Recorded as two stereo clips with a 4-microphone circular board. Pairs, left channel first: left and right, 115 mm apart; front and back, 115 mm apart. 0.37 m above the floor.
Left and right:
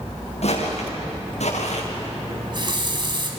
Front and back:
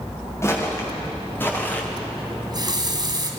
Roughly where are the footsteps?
Ahead left.